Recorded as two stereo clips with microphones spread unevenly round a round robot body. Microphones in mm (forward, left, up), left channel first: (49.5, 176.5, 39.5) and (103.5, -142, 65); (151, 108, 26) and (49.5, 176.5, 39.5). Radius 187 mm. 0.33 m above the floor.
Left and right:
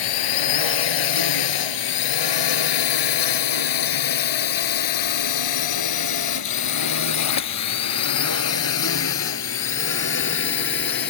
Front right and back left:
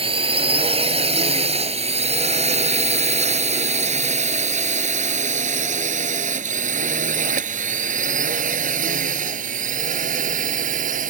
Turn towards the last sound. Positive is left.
turn(degrees=160)